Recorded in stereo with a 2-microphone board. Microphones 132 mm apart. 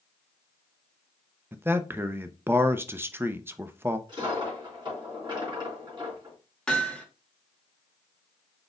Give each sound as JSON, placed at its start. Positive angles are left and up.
{"t": 1.5, "sound": "a man speaking", "side_deg": -15, "distance_m": 0.5}
{"t": 4.1, "sound": "a dropped coin", "side_deg": -35, "distance_m": 3.0}
{"t": 6.7, "sound": "hammering", "side_deg": 5, "distance_m": 1.7}